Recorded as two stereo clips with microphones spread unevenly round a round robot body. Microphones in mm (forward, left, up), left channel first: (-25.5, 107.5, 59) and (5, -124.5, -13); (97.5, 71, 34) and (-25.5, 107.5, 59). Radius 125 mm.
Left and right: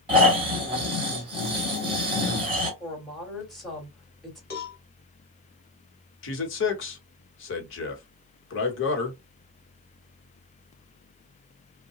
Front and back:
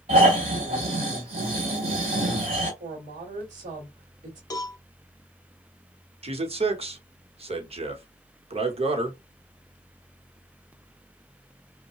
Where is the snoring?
145° right, 2.5 m.